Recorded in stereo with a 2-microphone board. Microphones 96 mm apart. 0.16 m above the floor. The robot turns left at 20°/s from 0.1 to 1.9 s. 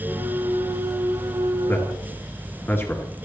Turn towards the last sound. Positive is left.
turn(degrees=25)  # may be behind; listen again after turning